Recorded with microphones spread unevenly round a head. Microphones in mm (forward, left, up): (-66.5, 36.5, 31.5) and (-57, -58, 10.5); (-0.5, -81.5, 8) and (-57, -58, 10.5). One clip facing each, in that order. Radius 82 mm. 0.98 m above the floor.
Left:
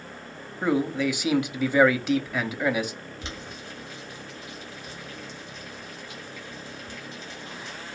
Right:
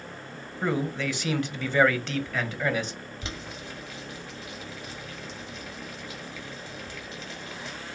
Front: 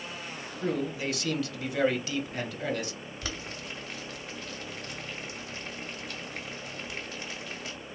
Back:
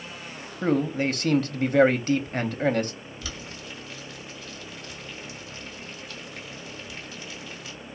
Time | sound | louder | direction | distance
0.6 | a man speaking | left 4 dB, back 7 dB | 175° right | 0.8 m
3.2 | boiling | right 2 dB, front 1 dB | 65° right | 1.9 m